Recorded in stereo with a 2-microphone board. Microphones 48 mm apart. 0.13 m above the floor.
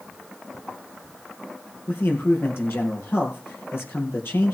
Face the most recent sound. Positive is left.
turn(degrees=60)  # may be behind; listen again after turning